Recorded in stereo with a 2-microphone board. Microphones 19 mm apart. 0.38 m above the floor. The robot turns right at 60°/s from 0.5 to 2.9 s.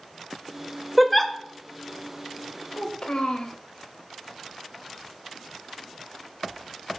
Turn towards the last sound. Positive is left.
turn(degrees=50)  # may be behind; listen again after turning